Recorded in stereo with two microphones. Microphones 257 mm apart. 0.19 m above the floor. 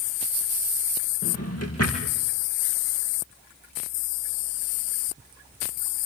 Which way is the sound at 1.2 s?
65° left (ahead or behind).